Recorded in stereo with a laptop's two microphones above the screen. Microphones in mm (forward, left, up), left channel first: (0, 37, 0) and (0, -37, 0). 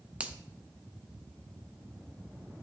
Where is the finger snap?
15° right (ahead or behind), 0.5 m.